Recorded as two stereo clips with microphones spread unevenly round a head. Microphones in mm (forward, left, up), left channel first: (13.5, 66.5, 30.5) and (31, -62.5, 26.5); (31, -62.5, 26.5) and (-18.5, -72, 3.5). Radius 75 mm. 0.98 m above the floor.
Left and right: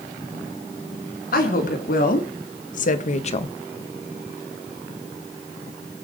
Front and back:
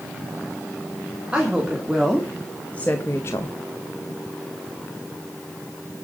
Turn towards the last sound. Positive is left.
turn(degrees=60)